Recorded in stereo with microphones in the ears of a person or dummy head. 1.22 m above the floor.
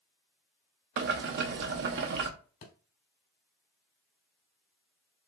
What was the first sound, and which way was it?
Boiling, 55° right (ahead or behind).